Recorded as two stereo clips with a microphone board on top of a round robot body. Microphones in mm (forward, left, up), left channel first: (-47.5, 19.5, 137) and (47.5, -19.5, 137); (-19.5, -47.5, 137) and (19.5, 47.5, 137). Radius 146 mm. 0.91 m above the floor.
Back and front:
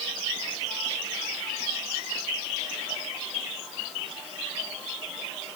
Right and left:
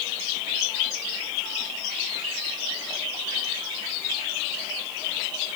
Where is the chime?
No chime in this recording.